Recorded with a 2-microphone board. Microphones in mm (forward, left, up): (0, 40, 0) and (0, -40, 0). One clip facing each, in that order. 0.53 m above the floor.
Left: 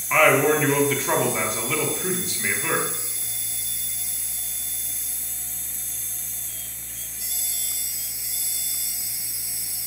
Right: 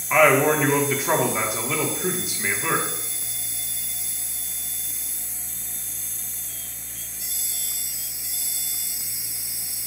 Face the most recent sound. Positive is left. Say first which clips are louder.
# right 1 dB
turn(degrees=-10)  # may be behind; listen again after turning